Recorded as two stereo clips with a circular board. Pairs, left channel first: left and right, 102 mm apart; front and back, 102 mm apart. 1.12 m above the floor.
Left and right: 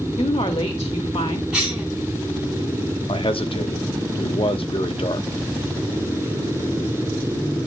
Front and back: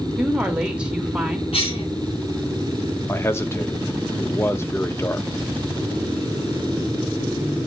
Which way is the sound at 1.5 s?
10° right.